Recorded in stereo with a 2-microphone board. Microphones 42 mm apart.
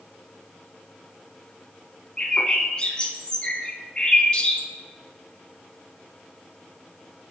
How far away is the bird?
About 0.8 m.